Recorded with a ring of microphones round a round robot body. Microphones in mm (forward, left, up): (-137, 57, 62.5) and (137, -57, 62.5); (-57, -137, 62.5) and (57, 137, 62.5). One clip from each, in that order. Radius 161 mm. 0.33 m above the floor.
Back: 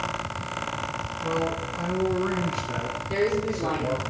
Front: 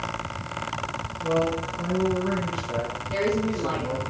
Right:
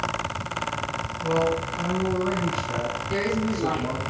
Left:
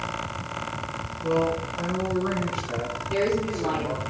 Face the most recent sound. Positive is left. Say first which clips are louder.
# back 1 dB, left 4 dB
turn(degrees=-145)